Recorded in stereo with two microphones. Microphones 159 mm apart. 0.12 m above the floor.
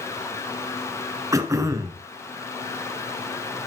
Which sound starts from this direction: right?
Throat clearing, at 1.3 s.